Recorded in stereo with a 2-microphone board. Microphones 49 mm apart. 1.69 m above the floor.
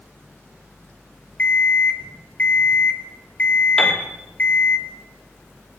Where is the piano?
5° left (ahead or behind), 3 m.